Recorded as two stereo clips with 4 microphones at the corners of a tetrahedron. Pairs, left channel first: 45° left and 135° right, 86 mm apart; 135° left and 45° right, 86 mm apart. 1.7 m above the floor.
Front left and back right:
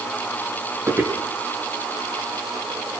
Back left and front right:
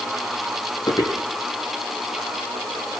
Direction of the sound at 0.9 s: 170° left.